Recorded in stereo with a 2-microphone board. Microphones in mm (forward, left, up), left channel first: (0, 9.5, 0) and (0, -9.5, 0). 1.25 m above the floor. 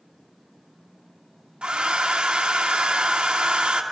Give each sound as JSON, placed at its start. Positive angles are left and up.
{"t": 1.6, "sound": "a hair dryer", "side_deg": -80, "distance_m": 1.6}